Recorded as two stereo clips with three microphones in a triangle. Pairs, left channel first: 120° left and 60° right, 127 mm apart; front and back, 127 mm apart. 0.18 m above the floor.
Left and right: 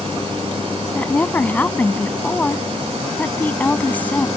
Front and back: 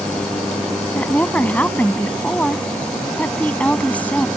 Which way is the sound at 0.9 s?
60° left.